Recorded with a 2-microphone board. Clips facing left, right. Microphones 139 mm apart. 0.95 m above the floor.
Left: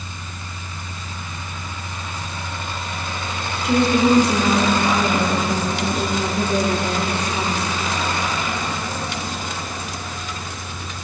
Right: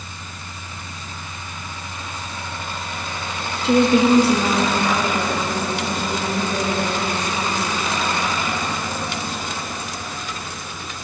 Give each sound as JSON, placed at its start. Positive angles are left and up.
{"t": 3.6, "sound": "a woman speaking", "side_deg": -30, "distance_m": 1.4}